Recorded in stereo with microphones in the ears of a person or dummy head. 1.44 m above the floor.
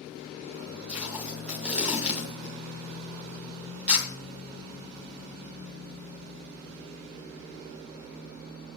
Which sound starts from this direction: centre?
Tape being pulled, at 0.9 s.